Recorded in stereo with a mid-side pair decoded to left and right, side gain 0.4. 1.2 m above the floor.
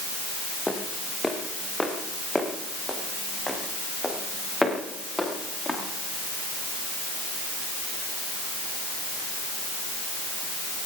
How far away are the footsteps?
About 5.5 m.